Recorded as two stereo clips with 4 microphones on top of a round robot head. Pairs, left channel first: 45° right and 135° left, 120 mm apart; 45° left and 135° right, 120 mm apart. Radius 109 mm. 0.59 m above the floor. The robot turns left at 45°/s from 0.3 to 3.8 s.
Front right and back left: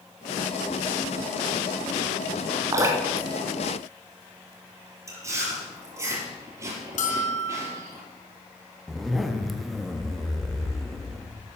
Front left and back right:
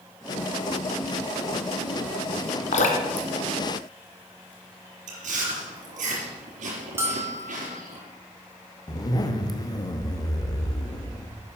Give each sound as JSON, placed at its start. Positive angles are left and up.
{"t": 2.7, "sound": "dripping", "azimuth_deg": 75, "distance_m": 1.7}
{"t": 5.1, "sound": "chewing", "azimuth_deg": -155, "distance_m": 4.0}
{"t": 7.0, "sound": "a bell", "azimuth_deg": -65, "distance_m": 2.5}
{"t": 8.9, "sound": "a zipper", "azimuth_deg": 45, "distance_m": 1.2}